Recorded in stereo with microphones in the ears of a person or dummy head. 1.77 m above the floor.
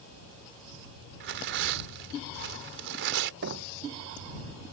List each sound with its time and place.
1.2 s tearing paper: 70° right (ahead or behind)
3.4 s knocking: 60° right (ahead or behind)